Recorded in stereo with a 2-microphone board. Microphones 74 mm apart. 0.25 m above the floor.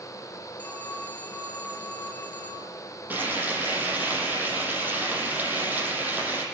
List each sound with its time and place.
0.6 s a phone ringing: 20° left (ahead or behind), 3.5 m
3.1 s frying: 25° right (ahead or behind), 7.5 m